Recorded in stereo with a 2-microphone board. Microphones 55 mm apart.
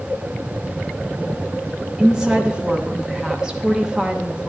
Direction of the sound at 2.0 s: 10° right (ahead or behind).